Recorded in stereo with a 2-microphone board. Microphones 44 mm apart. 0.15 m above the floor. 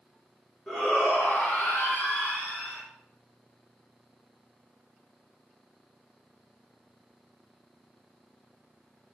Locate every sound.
0.7 s a shout: 20° left (ahead or behind), 1.0 m; by 2.8 s 50° left (ahead or behind), 1.8 m